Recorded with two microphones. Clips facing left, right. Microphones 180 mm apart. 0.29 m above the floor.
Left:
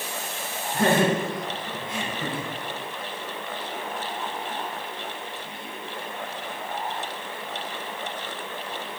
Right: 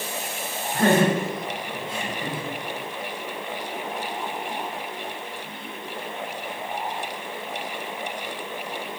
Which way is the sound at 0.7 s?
Centre (ahead or behind).